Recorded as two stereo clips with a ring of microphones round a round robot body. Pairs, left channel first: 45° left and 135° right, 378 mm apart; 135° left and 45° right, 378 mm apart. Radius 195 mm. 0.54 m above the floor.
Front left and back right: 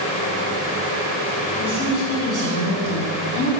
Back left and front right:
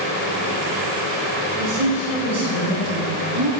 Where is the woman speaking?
5° right, 3 m; by 3.5 s 15° left, 4.5 m.